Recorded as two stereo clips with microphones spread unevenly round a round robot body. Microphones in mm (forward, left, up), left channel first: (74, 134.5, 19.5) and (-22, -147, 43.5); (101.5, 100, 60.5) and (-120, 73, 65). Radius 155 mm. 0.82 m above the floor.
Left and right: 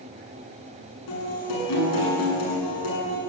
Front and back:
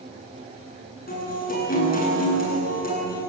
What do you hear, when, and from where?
1.1 s a guitar: 55° left, 8.5 m